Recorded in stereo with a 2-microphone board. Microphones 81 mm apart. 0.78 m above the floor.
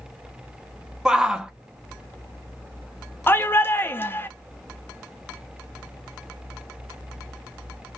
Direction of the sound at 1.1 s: 10° right (ahead or behind).